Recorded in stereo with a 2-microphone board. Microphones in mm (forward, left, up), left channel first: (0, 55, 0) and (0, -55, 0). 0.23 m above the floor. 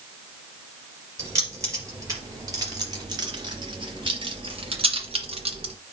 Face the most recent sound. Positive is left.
turn(degrees=-65)  # may be behind; listen again after turning